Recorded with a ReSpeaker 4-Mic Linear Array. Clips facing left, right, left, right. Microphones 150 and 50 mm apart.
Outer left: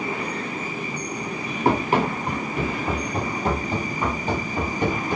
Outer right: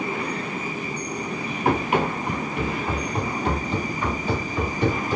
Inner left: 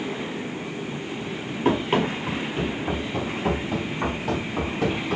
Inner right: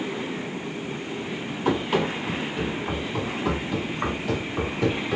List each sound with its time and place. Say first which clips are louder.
1.6 s running footsteps: outer left 1 dB, inner left 2 dB; 35° left (ahead or behind), 2 m; by 5.2 s 55° left (ahead or behind), 3.5 m